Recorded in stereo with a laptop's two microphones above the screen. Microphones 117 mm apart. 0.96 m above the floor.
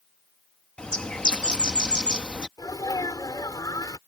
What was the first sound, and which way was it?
A bird, 10° left (ahead or behind).